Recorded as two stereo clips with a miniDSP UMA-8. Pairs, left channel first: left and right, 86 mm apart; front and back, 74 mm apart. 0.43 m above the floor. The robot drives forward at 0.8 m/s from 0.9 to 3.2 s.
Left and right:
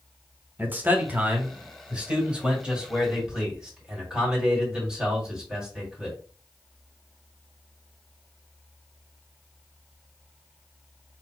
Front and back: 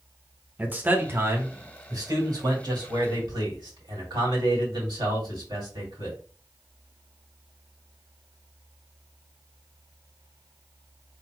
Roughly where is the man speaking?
Behind right.